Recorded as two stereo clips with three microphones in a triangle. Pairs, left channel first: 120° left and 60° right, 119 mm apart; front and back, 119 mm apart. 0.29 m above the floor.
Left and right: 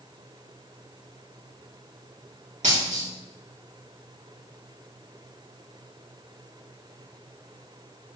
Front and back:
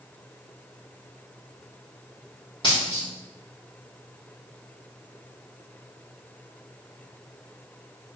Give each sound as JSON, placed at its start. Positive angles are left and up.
{"t": 2.6, "sound": "a dropped coin", "azimuth_deg": -45, "distance_m": 4.0}